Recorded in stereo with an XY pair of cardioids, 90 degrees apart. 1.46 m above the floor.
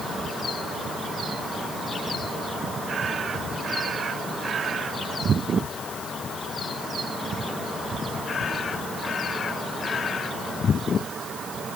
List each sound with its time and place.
Only background noise.